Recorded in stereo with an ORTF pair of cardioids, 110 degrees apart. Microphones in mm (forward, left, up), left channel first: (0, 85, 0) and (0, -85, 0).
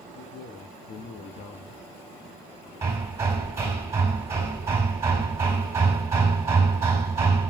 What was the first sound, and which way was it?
A man speaking, 50° left.